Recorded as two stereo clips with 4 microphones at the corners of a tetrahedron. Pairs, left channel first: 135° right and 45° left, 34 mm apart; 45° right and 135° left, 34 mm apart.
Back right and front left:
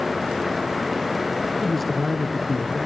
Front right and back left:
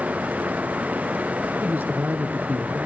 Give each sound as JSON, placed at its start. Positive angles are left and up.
{"t": 1.6, "sound": "a man speaking", "azimuth_deg": 140, "distance_m": 2.5}